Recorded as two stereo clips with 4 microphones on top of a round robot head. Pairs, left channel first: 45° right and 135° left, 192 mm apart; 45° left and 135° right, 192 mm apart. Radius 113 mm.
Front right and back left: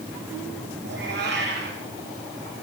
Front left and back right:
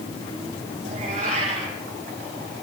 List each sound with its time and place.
0.8 s a cat meowing: 170° left, 7 m